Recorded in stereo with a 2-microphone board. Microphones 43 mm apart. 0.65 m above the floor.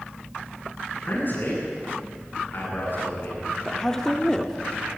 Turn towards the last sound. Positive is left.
turn(degrees=10)  # may be behind; listen again after turning